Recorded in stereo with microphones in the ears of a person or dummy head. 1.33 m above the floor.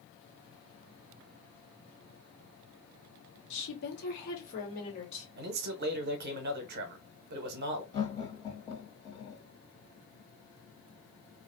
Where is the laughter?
30° left (ahead or behind), 1.5 m.